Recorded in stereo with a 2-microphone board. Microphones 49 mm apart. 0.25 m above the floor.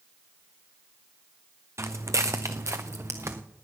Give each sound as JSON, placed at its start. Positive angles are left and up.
{"t": 1.8, "sound": "footsteps", "side_deg": -75, "distance_m": 1.2}